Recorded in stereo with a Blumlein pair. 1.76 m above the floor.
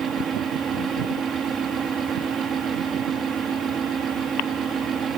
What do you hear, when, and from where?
0.0 s a fan: 20° right